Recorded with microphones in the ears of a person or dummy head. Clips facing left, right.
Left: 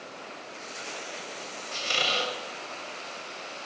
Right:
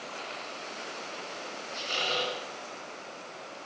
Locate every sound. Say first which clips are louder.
1.7 s a squeak: left 2 dB; 60° left (ahead or behind), 2.5 m